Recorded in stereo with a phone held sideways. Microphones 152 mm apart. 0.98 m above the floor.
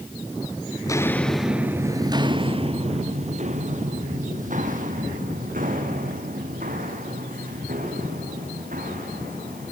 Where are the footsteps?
20° left (ahead or behind), 1.0 m; by 9.7 s 70° right (ahead or behind), 6.5 m.